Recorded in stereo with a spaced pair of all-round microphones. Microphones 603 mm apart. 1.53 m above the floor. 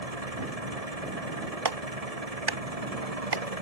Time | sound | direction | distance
0.0 | an engine running | 80° right | ?
1.6 | a clap | 40° right (ahead or behind) | ?